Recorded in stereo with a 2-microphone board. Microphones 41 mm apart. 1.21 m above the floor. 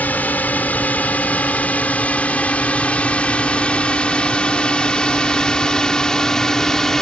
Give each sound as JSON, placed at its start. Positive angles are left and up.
{"t": 0.0, "sound": "a drone", "side_deg": 45}